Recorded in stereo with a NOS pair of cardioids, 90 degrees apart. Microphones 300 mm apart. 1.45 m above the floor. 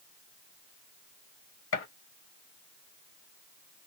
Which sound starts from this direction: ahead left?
A gunshot, at 1.7 s.